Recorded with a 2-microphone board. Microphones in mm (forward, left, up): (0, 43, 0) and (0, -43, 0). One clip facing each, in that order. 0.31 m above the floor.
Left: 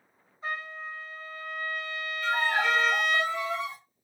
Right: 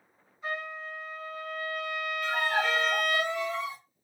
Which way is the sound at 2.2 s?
10° left (ahead or behind).